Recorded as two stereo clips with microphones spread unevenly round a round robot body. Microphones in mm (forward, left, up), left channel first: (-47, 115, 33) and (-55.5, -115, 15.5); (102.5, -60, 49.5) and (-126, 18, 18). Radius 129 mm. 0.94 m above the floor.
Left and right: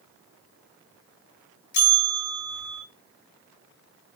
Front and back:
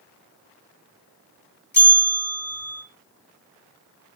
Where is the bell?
65° left, 3 m.